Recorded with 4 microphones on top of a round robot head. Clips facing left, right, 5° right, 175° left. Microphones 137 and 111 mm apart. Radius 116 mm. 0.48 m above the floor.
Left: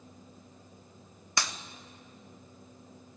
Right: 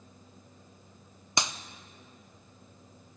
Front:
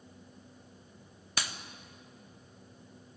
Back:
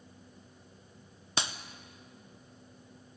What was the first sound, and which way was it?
A clap, 145° right.